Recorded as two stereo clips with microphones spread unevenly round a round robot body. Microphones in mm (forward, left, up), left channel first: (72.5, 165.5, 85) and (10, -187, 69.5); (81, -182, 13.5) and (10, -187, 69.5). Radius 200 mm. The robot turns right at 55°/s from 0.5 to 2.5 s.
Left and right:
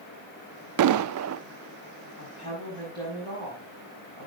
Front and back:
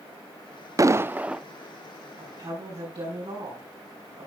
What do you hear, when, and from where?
0.8 s an explosion: 90° right, 0.6 m; by 1.4 s 55° right, 0.6 m
2.2 s a woman speaking: 140° left, 5.5 m; by 4.3 s 160° left, 5.5 m